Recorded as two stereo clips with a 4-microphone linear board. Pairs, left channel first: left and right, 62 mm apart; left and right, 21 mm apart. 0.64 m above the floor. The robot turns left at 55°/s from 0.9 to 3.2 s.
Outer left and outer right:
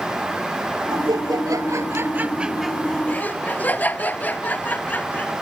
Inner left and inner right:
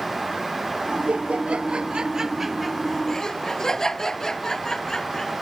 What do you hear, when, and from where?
0.9 s laughter: 80° right; by 5.3 s 25° left (ahead or behind)